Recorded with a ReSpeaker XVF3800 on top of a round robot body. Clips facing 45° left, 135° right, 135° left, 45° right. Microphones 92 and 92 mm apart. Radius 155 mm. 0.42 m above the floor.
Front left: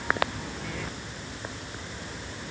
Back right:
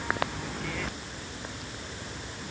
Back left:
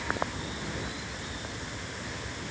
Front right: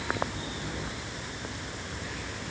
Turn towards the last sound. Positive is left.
No sound to turn to.